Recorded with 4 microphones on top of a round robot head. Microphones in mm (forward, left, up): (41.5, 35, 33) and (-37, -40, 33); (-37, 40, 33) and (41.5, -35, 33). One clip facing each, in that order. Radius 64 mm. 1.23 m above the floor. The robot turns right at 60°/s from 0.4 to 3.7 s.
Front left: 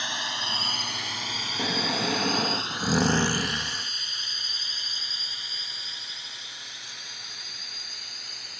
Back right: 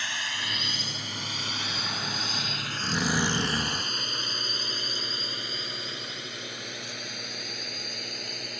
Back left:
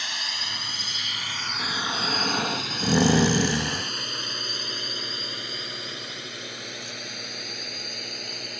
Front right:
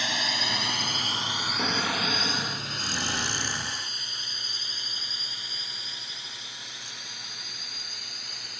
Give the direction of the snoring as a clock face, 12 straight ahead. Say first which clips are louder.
Front left 10 dB, front right 1 dB; 11 o'clock.